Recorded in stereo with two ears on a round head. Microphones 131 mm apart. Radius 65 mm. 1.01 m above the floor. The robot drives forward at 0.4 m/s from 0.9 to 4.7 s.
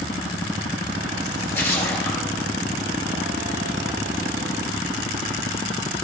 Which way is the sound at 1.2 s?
15° left (ahead or behind).